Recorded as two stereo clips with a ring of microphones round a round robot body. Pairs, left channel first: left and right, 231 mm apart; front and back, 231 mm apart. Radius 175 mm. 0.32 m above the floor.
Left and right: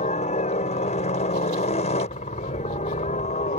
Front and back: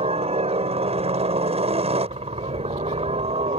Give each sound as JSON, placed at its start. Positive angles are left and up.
{"t": 0.0, "sound": "a helicopter", "azimuth_deg": 135}